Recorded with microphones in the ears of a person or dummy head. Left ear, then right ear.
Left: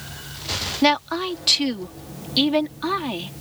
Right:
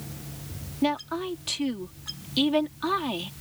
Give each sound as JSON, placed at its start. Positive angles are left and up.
{"t": 0.8, "sound": "a woman speaking", "side_deg": 35}